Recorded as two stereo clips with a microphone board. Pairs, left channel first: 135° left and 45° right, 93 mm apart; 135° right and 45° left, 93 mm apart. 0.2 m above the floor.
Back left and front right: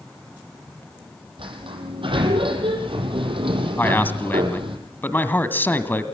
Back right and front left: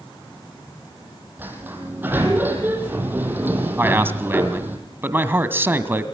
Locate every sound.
1.4 s a sliding door: 25° right, 4.5 m
3.8 s a man speaking: 90° left, 1.7 m